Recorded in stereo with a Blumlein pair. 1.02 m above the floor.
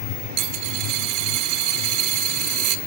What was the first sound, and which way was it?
A dropped coin, 40° right.